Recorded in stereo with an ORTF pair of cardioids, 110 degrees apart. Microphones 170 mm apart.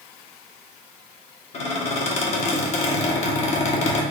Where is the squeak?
40° left, 1.3 m.